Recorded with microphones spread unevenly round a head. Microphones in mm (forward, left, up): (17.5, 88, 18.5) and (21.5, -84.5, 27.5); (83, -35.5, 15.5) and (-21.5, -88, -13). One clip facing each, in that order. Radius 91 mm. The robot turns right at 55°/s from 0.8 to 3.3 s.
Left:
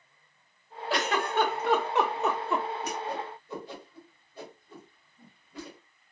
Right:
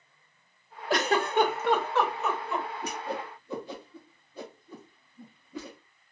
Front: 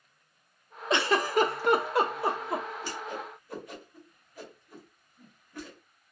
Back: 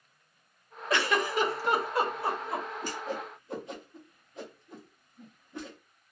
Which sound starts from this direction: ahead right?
A giggle, at 0.9 s.